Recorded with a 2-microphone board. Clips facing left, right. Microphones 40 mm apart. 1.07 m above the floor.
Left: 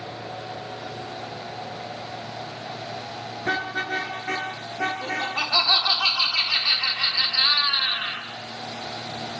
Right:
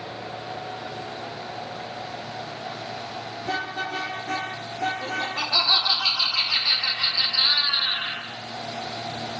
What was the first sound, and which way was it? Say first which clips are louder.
A car horn: left 3 dB; 65° left (ahead or behind).